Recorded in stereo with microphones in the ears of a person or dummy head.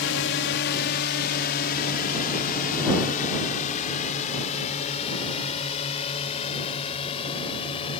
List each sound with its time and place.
0.0 s a drone: 60° left (ahead or behind); by 8.0 s 30° left (ahead or behind)